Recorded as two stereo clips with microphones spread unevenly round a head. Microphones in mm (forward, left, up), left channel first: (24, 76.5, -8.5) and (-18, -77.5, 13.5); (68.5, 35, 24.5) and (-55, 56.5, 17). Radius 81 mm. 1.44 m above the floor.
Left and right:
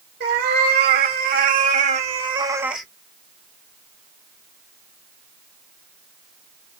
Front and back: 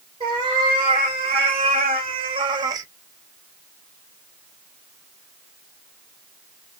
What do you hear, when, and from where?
0.2 s a cat meowing: 125° right, 3 m; by 2.9 s 175° left, 0.8 m